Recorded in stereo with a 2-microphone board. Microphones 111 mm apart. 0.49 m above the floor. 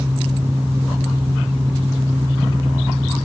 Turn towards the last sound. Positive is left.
No sound to turn to.